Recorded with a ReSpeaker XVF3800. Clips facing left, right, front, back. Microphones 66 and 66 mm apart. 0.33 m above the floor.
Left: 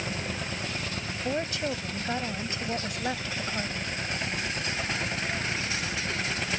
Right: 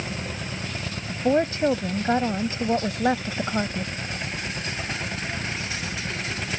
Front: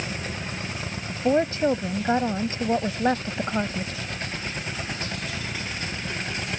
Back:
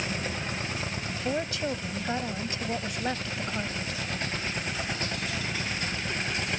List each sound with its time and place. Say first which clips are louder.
1.1 s a woman speaking: right 10 dB, front 10 dB; 45° right